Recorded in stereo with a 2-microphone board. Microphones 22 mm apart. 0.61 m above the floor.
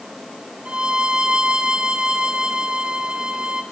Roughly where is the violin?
Right.